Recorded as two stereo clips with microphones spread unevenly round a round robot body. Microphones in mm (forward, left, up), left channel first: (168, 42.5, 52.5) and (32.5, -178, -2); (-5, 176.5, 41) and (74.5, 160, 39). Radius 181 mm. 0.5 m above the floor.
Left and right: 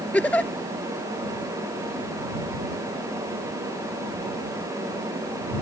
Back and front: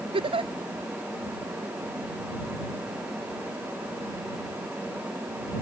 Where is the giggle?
25° right.